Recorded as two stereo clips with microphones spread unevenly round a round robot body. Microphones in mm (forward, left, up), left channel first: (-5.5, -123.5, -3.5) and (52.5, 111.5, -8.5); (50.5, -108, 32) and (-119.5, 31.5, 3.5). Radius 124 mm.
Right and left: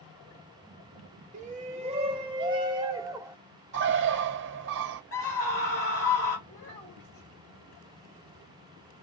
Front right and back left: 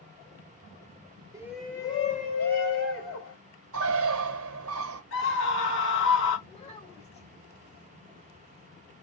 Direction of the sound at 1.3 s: 100° left.